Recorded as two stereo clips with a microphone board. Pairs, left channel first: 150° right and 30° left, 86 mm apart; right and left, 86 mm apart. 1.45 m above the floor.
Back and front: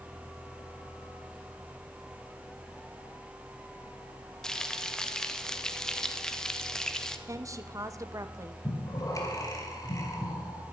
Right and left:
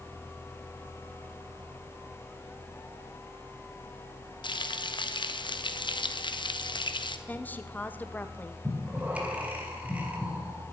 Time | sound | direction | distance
4.4 | frying | 70° right | 1.1 m
7.3 | a woman speaking | 20° right | 1.1 m
8.6 | breathing | 165° left | 3 m